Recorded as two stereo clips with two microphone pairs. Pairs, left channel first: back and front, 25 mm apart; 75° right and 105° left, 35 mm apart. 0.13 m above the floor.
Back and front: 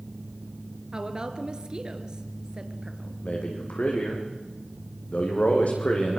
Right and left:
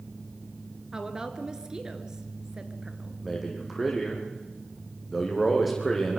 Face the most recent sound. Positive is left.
turn(degrees=-165)